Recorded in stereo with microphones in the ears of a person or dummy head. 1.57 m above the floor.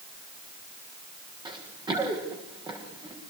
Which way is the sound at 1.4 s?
20° right (ahead or behind).